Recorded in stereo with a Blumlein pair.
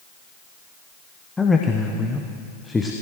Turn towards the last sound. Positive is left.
turn(degrees=10)